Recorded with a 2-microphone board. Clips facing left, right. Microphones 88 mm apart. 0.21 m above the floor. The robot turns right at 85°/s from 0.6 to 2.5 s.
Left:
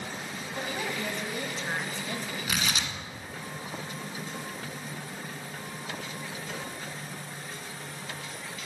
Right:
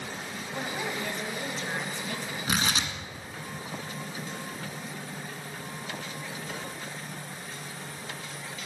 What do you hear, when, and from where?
0.5 s a woman speaking: 5° right (ahead or behind), 1.1 m; by 2.4 s 20° left (ahead or behind), 1.1 m
2.5 s tearing paper: 35° right (ahead or behind), 1.4 m